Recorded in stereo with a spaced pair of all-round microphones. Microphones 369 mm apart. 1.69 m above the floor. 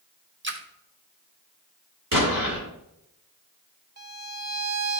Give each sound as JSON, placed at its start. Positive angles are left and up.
{"t": 0.4, "sound": "a splash", "side_deg": -30, "distance_m": 0.8}
{"t": 2.1, "sound": "an explosion", "side_deg": -65, "distance_m": 2.5}
{"t": 4.0, "sound": "a violin", "side_deg": -45, "distance_m": 0.7}